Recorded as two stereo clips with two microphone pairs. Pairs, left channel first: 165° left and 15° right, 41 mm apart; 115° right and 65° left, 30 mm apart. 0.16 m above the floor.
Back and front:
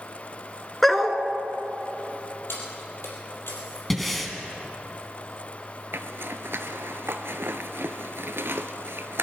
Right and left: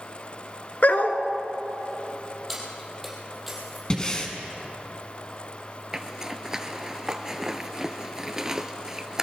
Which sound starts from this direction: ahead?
A zipper, at 5.9 s.